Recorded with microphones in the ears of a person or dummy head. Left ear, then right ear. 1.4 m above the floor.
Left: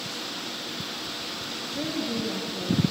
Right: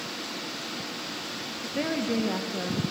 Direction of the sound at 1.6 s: 20° right (ahead or behind).